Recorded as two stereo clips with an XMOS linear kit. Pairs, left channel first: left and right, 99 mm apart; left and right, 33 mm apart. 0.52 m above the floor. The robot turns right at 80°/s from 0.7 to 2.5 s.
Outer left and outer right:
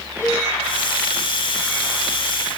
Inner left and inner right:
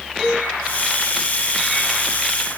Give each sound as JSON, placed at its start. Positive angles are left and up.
{"t": 0.2, "sound": "a cowbell", "side_deg": 25, "distance_m": 6.0}